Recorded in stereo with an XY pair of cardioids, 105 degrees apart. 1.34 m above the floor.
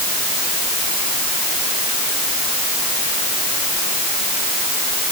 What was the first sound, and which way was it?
Only background noise.